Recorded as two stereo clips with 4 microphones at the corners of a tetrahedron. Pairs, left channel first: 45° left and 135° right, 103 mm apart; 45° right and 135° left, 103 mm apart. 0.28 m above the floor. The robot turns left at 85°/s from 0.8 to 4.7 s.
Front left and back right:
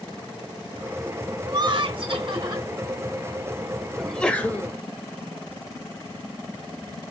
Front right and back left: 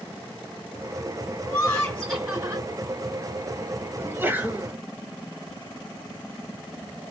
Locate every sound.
1.4 s laughter: 85° right, 2 m; by 2.7 s 170° left, 2 m
4.0 s a sneeze: 135° left, 1.0 m; by 4.8 s 75° left, 1.0 m